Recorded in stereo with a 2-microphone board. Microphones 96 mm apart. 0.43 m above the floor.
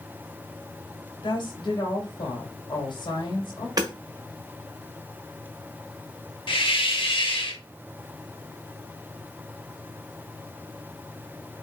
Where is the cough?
I don't hear a cough.